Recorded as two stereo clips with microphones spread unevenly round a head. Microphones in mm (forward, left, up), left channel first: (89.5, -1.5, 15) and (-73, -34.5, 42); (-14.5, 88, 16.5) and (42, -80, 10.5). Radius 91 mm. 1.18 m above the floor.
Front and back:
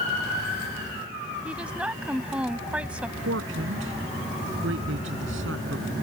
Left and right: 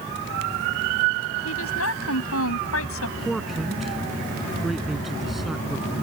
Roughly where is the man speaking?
Behind.